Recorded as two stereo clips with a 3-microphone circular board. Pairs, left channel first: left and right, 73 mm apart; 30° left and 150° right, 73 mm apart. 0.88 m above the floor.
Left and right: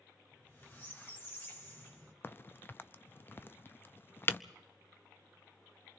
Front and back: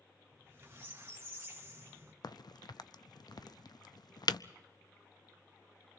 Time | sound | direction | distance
0.3 | a squeak | 150° left | 1.8 m
2.2 | a crack | 35° left | 0.5 m